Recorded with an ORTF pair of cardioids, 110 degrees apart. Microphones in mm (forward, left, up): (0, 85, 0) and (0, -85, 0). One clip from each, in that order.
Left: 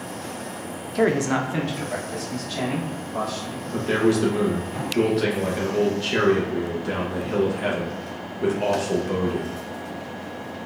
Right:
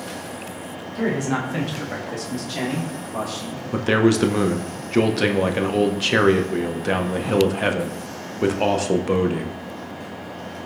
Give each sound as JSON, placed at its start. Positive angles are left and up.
{"t": 0.9, "sound": "a man speaking", "azimuth_deg": 40, "distance_m": 0.6}
{"t": 3.7, "sound": "a man speaking", "azimuth_deg": -40, "distance_m": 0.5}